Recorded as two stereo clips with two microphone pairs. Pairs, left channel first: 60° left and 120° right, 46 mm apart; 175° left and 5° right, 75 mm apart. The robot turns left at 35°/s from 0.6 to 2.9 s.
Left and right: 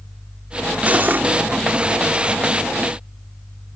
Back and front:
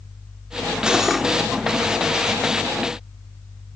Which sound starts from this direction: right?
Cutlery clinking, at 0.9 s.